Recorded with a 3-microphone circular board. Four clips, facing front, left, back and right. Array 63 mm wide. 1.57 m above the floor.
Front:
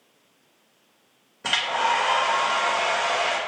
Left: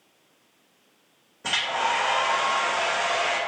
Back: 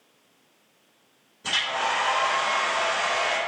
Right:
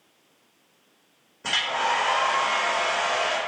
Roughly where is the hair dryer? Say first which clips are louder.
Even, front 3 dB; ahead.